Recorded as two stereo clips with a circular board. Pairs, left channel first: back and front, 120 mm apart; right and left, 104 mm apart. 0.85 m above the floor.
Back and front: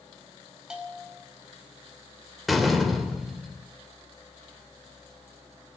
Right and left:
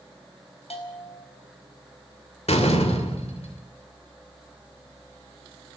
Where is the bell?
85° right, 4 m.